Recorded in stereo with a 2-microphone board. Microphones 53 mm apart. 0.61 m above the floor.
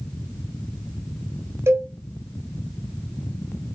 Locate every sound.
1.7 s a cowbell: 60° right (ahead or behind), 2.5 m